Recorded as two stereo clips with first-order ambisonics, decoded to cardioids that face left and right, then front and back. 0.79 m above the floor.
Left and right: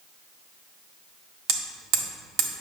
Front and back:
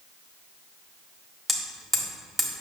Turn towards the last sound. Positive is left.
turn(degrees=-100)